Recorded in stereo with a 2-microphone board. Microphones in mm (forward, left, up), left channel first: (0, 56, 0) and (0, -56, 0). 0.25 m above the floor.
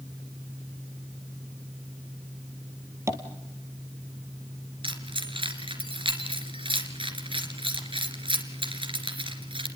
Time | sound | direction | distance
3.1 | tapping | 25° right (ahead or behind) | 2 m
4.8 | keys jangling | 50° right (ahead or behind) | 2.5 m